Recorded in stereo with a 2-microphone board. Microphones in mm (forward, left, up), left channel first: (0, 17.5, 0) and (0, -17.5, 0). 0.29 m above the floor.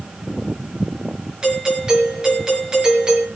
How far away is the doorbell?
About 5.5 m.